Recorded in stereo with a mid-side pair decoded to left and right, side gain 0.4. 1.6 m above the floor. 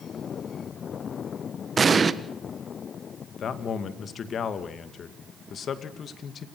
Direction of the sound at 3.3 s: 60° left.